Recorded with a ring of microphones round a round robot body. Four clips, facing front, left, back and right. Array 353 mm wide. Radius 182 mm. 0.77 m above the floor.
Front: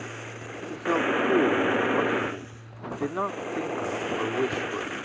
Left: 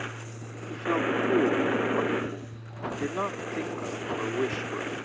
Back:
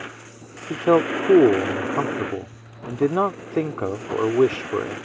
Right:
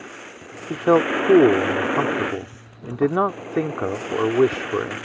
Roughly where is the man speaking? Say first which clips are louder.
Right 10 dB, back 7 dB; behind right.